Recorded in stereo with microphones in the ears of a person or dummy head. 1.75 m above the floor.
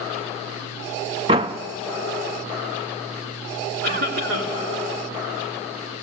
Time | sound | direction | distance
1.3 | a door slam | 20° right (ahead or behind) | 0.5 m
3.8 | a cough | 55° right (ahead or behind) | 3.5 m